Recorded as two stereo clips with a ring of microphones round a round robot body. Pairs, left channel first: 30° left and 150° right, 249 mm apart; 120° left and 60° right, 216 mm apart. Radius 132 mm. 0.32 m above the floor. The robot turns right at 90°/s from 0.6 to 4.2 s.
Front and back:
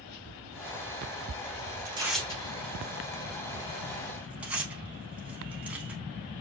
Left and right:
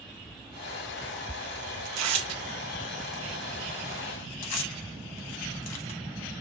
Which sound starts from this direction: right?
Tearing paper, at 1.9 s.